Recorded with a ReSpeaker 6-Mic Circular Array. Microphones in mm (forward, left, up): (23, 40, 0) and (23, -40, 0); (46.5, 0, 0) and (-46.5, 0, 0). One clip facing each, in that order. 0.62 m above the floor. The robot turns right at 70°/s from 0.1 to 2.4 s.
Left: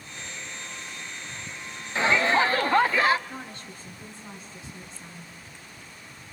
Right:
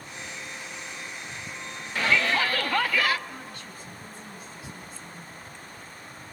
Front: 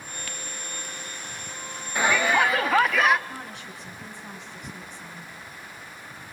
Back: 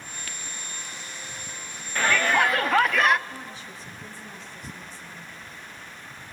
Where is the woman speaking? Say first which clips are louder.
Left 1 dB, front 1 dB; 25° left, 6 m.